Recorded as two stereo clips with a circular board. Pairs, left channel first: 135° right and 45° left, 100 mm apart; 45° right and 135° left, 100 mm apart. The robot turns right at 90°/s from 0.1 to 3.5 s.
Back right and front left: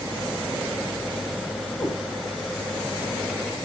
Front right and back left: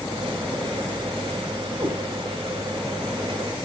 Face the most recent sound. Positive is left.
turn(degrees=-40)